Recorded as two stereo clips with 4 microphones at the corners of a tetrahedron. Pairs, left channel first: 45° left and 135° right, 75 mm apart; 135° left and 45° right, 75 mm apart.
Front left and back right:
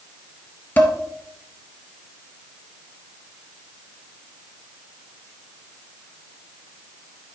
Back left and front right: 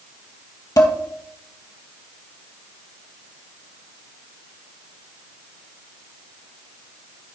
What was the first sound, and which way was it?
Dishes clattering, 105° left.